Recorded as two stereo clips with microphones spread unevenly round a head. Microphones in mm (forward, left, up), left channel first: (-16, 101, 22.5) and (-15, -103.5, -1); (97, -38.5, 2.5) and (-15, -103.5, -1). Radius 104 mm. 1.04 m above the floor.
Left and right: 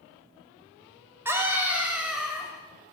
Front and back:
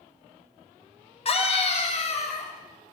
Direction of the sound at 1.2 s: 10° right.